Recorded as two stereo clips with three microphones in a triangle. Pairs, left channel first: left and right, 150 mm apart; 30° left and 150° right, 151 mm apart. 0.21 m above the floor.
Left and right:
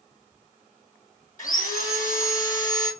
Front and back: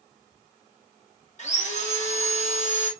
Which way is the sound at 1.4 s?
65° left.